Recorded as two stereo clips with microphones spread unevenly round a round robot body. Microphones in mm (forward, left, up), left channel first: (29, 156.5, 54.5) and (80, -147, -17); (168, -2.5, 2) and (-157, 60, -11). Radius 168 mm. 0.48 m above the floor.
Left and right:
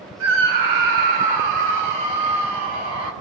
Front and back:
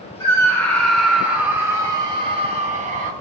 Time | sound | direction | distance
0.2 | a scream | 90° right | 5.5 m